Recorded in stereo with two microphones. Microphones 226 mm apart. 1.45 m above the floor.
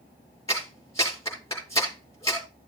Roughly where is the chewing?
I don't hear chewing.